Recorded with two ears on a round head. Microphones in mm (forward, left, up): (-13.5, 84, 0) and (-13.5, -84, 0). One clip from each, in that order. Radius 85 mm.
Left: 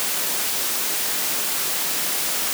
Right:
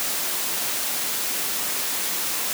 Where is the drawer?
No drawer in this recording.